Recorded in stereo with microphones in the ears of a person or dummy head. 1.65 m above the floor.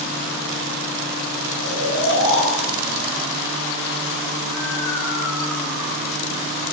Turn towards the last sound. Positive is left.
turn(degrees=70)  # may be behind; listen again after turning